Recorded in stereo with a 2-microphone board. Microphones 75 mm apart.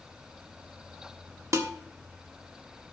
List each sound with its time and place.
1.5 s dishes clattering: 40° right (ahead or behind), 1.3 m